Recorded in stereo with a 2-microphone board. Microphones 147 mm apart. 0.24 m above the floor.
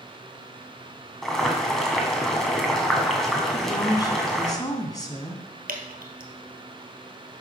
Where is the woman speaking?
25° left (ahead or behind), 1.9 m.